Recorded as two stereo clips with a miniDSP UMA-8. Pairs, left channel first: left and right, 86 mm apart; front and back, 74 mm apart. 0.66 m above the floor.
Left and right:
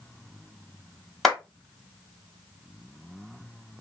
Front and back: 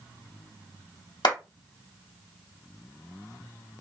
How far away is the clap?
About 1.6 m.